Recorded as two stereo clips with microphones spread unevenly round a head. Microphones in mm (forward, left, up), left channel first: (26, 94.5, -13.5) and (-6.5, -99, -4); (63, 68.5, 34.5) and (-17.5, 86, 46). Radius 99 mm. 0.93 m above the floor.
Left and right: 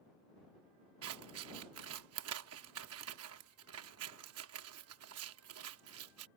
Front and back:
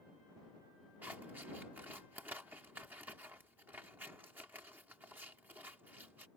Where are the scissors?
115° right.